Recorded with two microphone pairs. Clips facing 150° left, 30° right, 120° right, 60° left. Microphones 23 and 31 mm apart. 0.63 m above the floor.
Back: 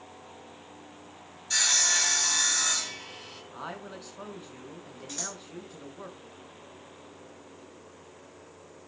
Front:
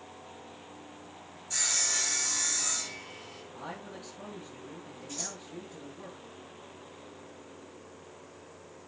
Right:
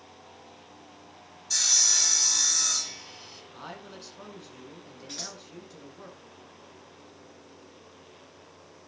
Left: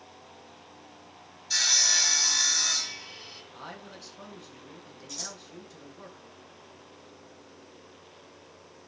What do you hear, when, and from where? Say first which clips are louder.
1.5 s sawing: back 6 dB, left 2 dB; 125° left, 1.7 m
3.5 s a man speaking: back 3 dB, right 3 dB; 155° left, 7 m
5.1 s scissors: back 2 dB, right 1 dB; 170° right, 7 m